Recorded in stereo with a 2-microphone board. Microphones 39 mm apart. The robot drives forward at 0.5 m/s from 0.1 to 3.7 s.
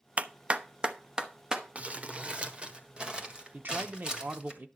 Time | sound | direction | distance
0.2 | a clap | 35° right (ahead or behind) | 0.5 m
1.8 | crumpling | 35° right (ahead or behind) | 1.0 m
3.5 | a man speaking | 50° right (ahead or behind) | 0.9 m